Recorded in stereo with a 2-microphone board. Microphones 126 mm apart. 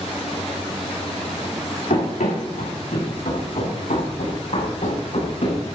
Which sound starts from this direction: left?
Running footsteps, at 1.9 s.